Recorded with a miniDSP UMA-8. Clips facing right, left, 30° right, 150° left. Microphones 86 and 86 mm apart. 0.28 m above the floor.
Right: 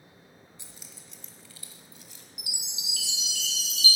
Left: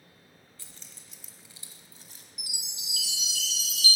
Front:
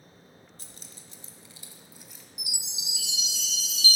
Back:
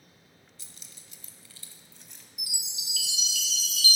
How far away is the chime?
About 1.8 m.